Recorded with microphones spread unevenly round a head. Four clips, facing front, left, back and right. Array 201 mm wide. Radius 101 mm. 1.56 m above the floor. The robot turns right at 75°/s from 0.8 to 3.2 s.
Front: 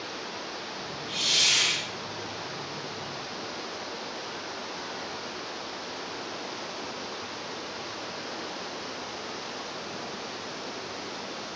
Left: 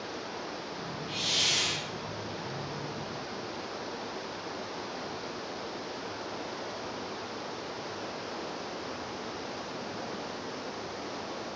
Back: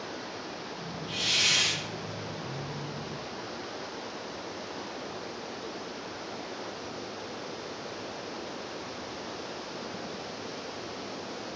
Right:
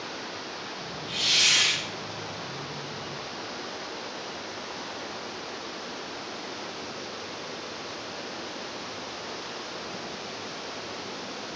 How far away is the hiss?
About 1.2 m.